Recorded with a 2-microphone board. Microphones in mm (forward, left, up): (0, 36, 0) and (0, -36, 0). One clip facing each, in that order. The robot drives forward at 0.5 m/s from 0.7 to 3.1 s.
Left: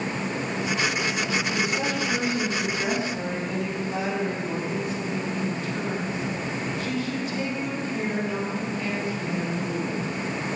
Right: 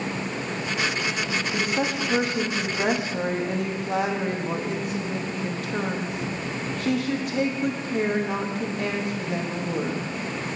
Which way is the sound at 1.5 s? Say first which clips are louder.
Right 1 dB; 55° right (ahead or behind).